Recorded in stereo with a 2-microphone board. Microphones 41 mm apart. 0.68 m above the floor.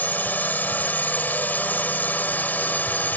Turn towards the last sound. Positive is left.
turn(degrees=45)  # may be behind; listen again after turning